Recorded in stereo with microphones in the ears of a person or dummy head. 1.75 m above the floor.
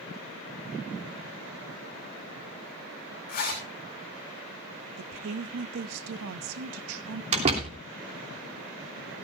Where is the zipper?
45° left (ahead or behind), 3.5 m.